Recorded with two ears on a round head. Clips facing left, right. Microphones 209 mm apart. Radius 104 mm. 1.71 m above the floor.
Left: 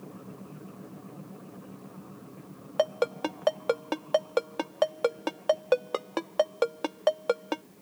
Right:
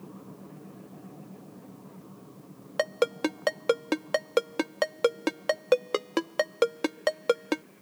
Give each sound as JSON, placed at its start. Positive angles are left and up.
{"t": 2.8, "sound": "a ringtone", "side_deg": -30}